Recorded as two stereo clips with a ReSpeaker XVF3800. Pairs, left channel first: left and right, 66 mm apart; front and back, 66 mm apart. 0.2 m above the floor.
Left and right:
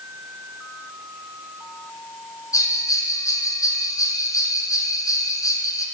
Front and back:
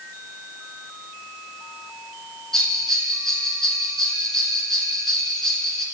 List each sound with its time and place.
2.5 s a bell: 85° left, 1.5 m